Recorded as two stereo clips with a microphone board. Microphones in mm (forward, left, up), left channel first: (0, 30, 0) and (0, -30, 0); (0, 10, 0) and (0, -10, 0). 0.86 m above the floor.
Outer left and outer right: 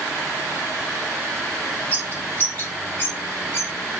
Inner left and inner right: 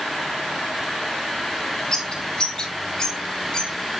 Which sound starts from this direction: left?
A bird, at 1.9 s.